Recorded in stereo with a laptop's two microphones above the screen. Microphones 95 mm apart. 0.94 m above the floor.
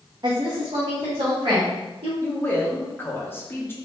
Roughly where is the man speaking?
Left.